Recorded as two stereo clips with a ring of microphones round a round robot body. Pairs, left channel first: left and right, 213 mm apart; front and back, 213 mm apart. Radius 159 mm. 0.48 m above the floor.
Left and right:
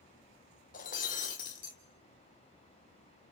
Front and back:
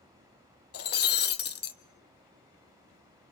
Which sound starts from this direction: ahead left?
Breaking glass, at 0.7 s.